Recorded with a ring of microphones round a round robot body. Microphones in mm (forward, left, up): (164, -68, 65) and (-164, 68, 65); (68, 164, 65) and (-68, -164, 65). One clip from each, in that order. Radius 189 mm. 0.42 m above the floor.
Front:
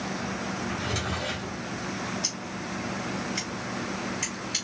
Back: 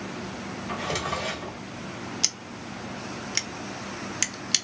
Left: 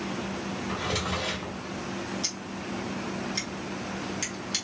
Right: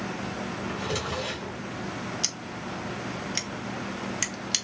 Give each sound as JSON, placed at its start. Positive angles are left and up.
{"t": 0.7, "sound": "a drawer", "azimuth_deg": 160, "distance_m": 1.4}
{"t": 2.2, "sound": "scissors", "azimuth_deg": 180, "distance_m": 0.7}